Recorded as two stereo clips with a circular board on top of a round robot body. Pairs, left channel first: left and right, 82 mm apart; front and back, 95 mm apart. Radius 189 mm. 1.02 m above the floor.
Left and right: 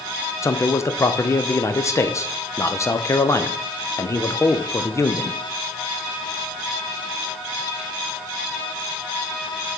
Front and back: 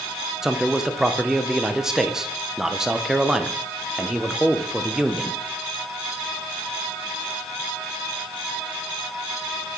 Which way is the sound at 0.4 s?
100° left.